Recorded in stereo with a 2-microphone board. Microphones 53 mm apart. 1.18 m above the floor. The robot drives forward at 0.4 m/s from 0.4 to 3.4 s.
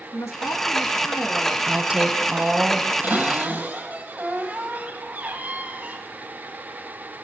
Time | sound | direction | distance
0.1 | a woman speaking | 80° left | 1.9 m
1.7 | a woman speaking | 25° right (ahead or behind) | 0.8 m
3.0 | a cupboard door | 35° right (ahead or behind) | 8 m